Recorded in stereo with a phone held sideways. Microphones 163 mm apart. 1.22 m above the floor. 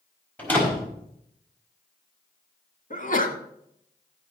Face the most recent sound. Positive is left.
turn(degrees=55)  # may be behind; listen again after turning